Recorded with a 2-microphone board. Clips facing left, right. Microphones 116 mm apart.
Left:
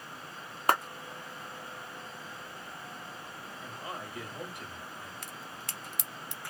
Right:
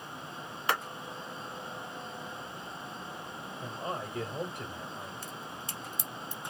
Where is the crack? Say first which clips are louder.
Right 2 dB; 75° left (ahead or behind), 0.7 m.